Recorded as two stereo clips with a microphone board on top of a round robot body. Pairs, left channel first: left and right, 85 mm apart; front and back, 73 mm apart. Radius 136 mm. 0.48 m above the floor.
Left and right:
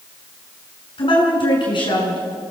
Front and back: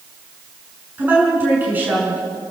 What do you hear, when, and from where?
1.0 s a woman speaking: 115° left, 7 m